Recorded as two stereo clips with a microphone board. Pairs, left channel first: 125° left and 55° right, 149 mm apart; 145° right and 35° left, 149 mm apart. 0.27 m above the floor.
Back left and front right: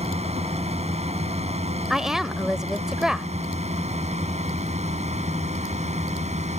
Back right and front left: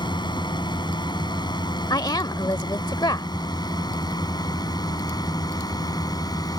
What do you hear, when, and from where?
0.0 s a drone: 90° right; by 6.6 s 85° right
1.9 s a woman speaking: 140° right